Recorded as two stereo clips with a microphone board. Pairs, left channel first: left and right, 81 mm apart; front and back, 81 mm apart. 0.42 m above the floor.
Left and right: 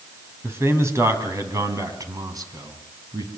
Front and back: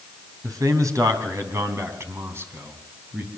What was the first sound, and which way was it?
A man speaking, 145° right.